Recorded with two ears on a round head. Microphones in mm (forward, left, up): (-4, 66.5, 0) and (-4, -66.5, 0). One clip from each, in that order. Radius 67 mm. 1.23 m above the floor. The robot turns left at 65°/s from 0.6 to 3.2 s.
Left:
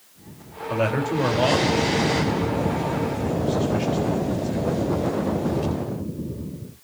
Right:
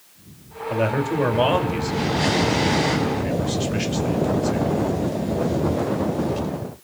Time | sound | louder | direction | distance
0.7 | a man speaking | right 1 dB | 25° left (ahead or behind) | 4 m